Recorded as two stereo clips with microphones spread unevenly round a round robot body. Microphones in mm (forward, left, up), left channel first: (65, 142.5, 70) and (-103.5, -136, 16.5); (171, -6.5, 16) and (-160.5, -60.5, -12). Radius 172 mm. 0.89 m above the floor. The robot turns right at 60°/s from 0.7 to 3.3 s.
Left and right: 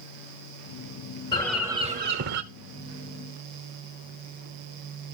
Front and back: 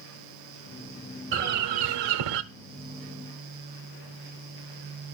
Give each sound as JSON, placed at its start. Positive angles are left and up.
{"t": 1.3, "sound": "a bird", "azimuth_deg": 130, "distance_m": 1.0}